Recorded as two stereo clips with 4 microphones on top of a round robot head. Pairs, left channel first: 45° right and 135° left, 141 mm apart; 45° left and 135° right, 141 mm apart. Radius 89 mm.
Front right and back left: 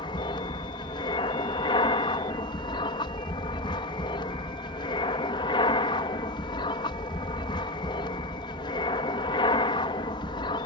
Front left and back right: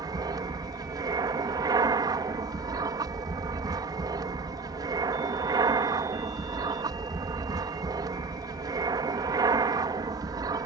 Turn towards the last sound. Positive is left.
turn(degrees=-85)